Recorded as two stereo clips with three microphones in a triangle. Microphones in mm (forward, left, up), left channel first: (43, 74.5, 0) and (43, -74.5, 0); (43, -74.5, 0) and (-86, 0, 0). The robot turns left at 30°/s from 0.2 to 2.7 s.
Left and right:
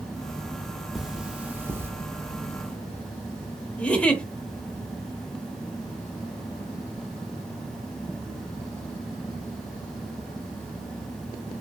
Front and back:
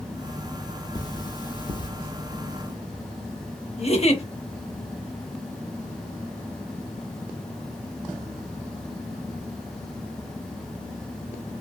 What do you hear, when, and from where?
0.9 s cutlery clinking: 5° right, 0.5 m; by 1.9 s 30° right, 0.5 m
3.8 s a giggle: 10° left, 0.6 m